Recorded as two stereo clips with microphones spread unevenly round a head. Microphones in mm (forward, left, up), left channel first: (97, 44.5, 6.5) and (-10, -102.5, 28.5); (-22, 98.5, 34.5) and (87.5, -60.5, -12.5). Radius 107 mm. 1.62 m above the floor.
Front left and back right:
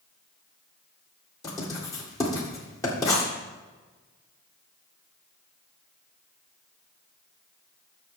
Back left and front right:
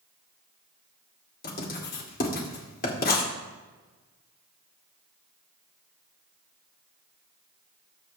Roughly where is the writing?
Behind left.